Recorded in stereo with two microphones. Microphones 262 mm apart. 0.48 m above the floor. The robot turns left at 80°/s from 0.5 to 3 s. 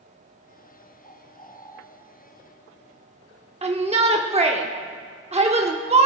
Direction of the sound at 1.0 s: 30° left (ahead or behind).